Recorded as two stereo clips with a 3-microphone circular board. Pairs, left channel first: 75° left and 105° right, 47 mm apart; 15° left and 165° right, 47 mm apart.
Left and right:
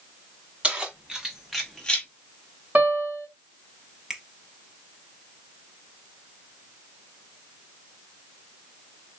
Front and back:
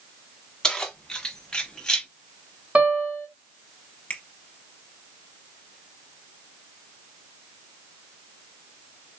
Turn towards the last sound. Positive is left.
turn(degrees=-25)